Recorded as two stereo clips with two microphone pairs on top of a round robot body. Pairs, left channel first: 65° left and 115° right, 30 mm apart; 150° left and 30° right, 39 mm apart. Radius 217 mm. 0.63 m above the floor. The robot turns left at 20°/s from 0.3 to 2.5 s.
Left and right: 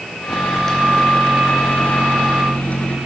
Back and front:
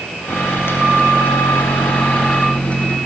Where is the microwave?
145° left, 1.3 m; by 3.0 s 100° left, 1.3 m.